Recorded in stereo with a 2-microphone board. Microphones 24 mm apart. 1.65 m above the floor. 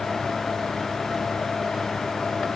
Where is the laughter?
No laughter in this recording.